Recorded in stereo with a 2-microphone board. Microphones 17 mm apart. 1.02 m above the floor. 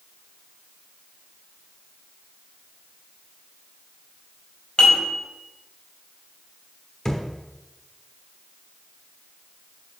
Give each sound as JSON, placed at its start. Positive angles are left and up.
{"t": 4.8, "sound": "dishes clattering", "side_deg": 45, "distance_m": 3.5}
{"t": 7.0, "sound": "a thud", "side_deg": 30, "distance_m": 1.0}